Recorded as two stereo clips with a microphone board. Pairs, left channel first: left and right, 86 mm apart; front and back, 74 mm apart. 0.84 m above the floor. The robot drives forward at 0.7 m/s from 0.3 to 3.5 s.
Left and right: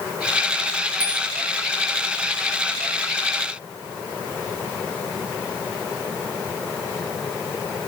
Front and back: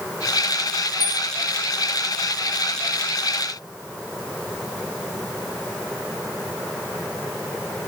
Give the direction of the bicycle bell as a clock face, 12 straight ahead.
11 o'clock.